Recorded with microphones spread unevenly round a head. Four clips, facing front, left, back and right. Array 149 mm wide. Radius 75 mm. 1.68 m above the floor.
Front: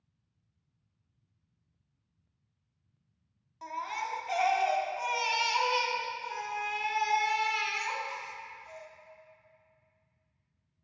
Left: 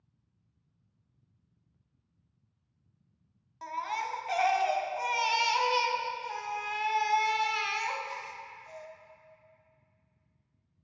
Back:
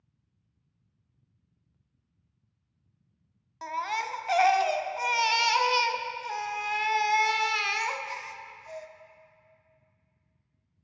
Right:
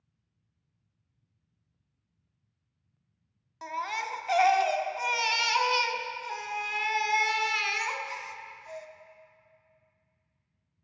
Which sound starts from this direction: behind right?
A baby crying, at 3.6 s.